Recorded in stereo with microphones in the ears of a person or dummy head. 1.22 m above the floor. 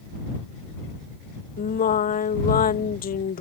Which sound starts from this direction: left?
Singing, at 1.6 s.